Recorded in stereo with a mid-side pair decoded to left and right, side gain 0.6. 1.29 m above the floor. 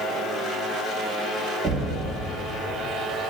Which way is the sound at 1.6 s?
45° right.